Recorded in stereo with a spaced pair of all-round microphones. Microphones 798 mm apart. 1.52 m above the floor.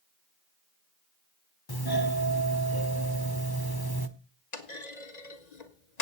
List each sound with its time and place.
1.7 s a doorbell: 30° left (ahead or behind), 1.2 m
4.5 s a clunk: 60° left (ahead or behind), 1.8 m